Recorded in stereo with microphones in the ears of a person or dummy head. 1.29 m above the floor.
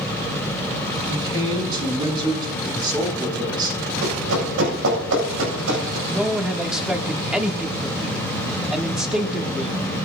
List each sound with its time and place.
1.1 s a man speaking: 25° right (ahead or behind), 6.5 m
4.0 s running footsteps: 70° right (ahead or behind), 7 m; by 6.0 s 75° right (ahead or behind), 8 m
6.1 s a man speaking: 5° right (ahead or behind), 1.4 m